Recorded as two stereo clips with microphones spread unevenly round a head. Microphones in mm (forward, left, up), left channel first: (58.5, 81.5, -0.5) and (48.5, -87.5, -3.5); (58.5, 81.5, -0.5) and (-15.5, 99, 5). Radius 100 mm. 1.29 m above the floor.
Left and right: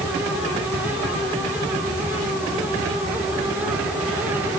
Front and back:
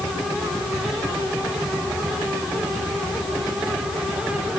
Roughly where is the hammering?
I don't hear hammering.